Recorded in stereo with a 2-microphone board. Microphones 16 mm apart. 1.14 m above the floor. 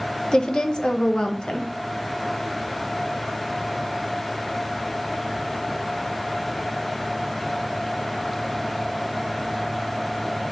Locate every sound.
0.3 s a woman speaking: 55° left (ahead or behind), 0.8 m